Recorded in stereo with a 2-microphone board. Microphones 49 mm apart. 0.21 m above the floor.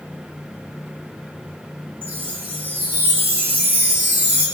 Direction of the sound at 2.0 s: 40° right (ahead or behind).